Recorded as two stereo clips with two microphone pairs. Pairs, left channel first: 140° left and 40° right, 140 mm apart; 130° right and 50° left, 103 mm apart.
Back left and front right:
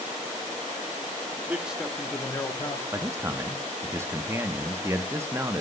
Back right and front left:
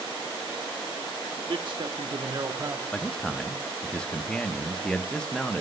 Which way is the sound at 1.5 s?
35° left.